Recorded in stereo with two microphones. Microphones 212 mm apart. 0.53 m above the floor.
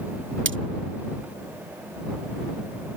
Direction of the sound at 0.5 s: 65° right (ahead or behind).